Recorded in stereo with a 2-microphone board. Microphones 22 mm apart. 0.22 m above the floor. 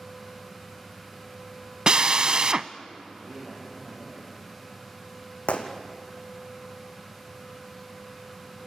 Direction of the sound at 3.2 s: 10° right (ahead or behind).